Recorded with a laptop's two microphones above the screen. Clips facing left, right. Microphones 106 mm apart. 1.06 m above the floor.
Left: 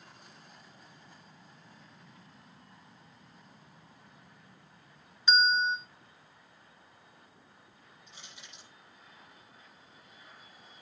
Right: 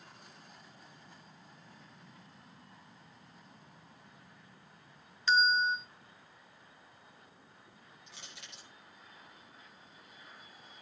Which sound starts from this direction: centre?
A bell, at 5.3 s.